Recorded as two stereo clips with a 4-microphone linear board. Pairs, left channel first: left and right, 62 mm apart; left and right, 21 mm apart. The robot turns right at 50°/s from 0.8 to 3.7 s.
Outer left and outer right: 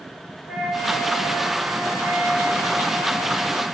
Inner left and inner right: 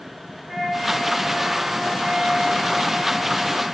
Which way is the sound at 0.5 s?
165° right.